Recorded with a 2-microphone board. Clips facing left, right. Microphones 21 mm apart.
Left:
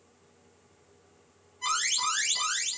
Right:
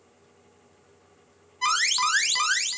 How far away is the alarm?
About 1.3 m.